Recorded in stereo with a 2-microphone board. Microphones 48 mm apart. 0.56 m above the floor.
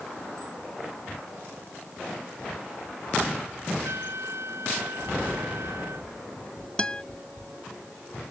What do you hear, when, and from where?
3.8 s a trumpet: 75° right (ahead or behind)
6.8 s a guitar: 20° left (ahead or behind)